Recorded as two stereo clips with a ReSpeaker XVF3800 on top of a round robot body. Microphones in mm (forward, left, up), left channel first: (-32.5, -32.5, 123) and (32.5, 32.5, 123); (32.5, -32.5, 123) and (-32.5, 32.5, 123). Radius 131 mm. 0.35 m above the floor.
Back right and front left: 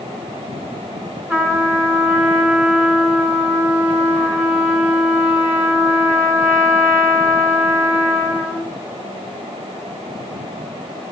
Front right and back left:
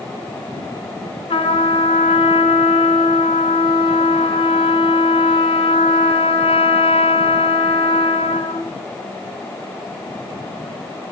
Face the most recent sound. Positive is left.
turn(degrees=-25)